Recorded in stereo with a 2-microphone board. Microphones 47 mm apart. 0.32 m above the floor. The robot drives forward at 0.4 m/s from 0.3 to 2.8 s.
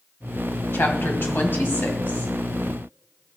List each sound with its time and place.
0.7 s a woman speaking: 55° left (ahead or behind), 1.8 m; by 2.3 s 50° left (ahead or behind), 2.0 m